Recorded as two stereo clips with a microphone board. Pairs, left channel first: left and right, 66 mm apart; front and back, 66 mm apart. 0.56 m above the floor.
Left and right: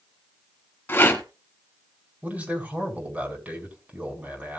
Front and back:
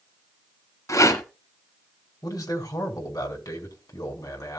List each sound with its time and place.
0.9 s a rattle: 30° left, 3 m
2.2 s a man speaking: 25° right, 5 m